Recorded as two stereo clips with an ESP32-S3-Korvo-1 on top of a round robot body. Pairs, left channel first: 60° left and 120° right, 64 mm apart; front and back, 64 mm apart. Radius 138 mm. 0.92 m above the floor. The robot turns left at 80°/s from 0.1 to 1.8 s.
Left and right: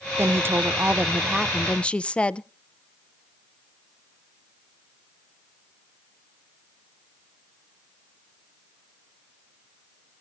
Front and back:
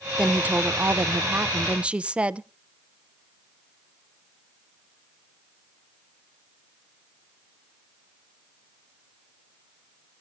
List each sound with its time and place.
0.2 s a woman speaking: 110° right, 0.5 m; by 2.5 s 120° left, 0.5 m